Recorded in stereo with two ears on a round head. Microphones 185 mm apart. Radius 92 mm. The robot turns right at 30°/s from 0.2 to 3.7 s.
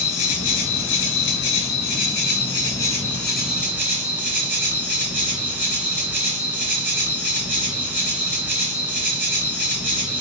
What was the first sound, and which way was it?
An insect, 85° left.